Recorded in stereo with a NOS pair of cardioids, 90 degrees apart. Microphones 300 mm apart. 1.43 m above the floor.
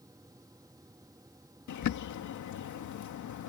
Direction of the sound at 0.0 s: 10° right.